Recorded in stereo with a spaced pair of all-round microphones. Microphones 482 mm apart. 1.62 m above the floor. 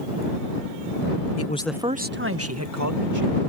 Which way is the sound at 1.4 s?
35° left (ahead or behind).